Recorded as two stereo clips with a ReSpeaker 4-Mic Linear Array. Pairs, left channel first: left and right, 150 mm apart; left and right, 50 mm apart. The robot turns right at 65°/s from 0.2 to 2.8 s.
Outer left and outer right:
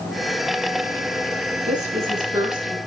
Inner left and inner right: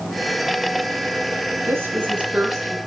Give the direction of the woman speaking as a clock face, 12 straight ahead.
2 o'clock.